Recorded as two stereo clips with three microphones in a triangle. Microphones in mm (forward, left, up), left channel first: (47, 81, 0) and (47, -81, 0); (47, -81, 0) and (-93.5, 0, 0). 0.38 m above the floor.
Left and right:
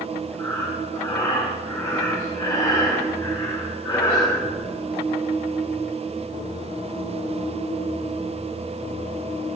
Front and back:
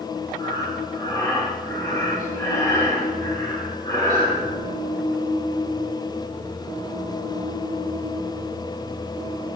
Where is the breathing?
30° left, 2.0 m.